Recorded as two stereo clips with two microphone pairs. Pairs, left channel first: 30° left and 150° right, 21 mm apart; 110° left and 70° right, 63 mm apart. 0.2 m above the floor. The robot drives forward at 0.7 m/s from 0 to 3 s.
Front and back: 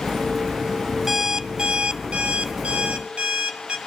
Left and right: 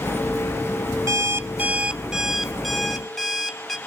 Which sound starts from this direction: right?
An alarm clock, at 1.1 s.